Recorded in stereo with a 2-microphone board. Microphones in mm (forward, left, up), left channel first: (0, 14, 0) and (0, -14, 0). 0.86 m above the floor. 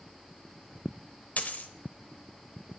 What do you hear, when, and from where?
1.4 s a dropped coin: 65° left (ahead or behind), 1.0 m